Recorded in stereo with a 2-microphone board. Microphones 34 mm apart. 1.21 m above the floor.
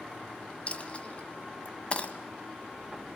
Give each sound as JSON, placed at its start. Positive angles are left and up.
{"t": 0.7, "sound": "a dropped coin", "side_deg": 40, "distance_m": 1.4}